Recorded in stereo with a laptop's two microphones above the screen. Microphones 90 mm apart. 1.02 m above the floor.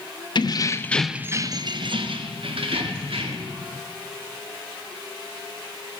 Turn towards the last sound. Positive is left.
turn(degrees=-80)